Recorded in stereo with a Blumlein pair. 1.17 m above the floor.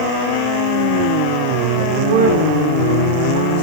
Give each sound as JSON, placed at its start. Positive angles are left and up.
{"t": 1.8, "sound": "a woman speaking", "azimuth_deg": -60, "distance_m": 2.5}